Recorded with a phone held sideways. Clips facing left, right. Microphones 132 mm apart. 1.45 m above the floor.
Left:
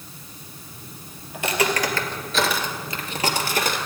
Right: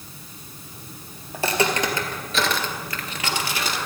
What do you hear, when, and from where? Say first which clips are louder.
1.3 s footsteps: right 1 dB; 35° right (ahead or behind), 2 m; by 3.8 s 50° left (ahead or behind), 2 m